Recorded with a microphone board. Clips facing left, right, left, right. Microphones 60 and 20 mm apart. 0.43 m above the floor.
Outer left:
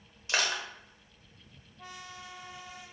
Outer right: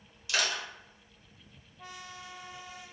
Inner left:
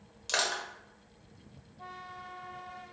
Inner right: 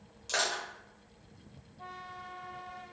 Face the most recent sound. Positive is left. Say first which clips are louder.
# outer left 1 dB, inner left 1 dB
turn(degrees=35)  # may be behind; listen again after turning